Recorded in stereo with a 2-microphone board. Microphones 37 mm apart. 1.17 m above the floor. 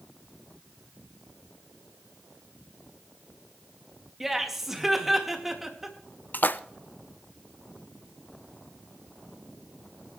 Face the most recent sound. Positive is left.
turn(degrees=50)  # may be behind; listen again after turning